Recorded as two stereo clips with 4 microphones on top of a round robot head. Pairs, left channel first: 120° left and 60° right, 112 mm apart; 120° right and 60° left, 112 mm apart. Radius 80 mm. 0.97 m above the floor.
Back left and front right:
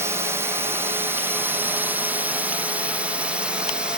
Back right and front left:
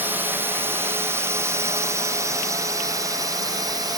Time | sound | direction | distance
0.0 | a drone | 5° right | ?